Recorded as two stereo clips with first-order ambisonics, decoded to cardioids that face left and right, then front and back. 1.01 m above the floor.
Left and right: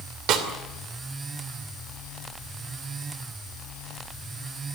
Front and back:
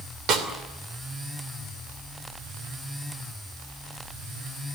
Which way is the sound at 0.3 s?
130° right.